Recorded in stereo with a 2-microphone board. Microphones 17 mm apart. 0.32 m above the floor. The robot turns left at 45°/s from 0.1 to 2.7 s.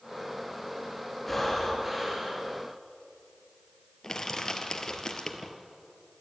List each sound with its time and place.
1.3 s breathing: 5° left, 4.5 m; by 2.5 s 50° right, 4.5 m
4.0 s crushing: 30° left (ahead or behind), 1.9 m